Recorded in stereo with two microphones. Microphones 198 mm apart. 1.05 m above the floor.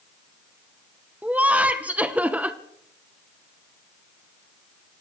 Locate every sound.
1.2 s laughter: 5° right (ahead or behind), 0.7 m